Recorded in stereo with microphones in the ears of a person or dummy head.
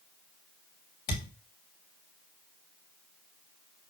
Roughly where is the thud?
Left.